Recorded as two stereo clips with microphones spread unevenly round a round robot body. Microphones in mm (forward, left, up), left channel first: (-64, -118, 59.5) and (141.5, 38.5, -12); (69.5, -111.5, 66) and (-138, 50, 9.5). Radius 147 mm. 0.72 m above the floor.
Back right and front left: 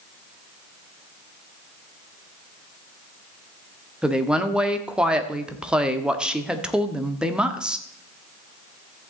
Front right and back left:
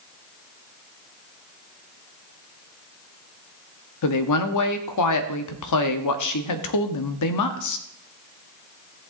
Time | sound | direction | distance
4.0 | a woman speaking | 40° right | 1.2 m